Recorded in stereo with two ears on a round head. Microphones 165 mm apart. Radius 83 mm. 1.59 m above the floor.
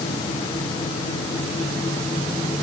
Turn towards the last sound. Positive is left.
No sound to turn to.